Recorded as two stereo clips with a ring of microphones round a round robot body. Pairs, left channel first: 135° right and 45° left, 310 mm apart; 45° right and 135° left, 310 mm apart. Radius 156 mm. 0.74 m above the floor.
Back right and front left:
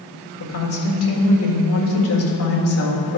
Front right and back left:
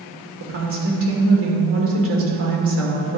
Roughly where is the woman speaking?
Behind.